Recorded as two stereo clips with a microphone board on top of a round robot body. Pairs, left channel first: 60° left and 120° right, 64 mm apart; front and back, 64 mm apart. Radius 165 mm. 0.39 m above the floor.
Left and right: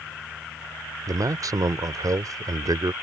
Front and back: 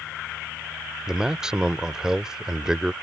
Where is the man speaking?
100° right.